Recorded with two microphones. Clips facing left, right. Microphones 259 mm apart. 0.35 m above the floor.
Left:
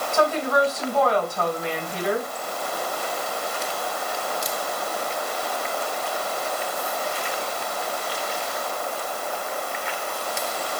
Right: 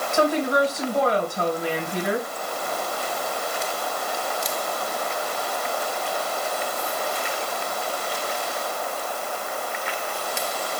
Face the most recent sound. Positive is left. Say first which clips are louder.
# right 1 dB
turn(degrees=-15)  # may be behind; listen again after turning